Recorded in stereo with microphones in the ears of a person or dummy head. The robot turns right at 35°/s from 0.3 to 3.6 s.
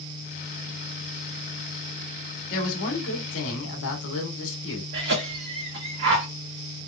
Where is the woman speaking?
50° left, 1.1 m; by 4.8 s 90° left, 1.1 m.